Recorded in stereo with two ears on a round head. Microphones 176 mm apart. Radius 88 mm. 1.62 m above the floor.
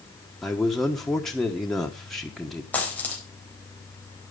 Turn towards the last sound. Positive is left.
turn(degrees=10)  # may be behind; listen again after turning